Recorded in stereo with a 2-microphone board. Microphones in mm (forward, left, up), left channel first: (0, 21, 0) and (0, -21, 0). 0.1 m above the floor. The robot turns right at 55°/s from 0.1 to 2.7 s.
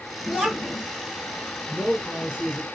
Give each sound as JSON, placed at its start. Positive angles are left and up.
{"t": 0.3, "sound": "a child speaking", "side_deg": -5, "distance_m": 1.4}
{"t": 1.7, "sound": "a man speaking", "side_deg": -10, "distance_m": 1.3}